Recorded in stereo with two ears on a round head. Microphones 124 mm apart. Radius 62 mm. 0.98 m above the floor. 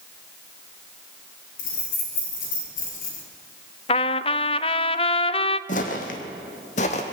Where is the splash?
No splash in this recording.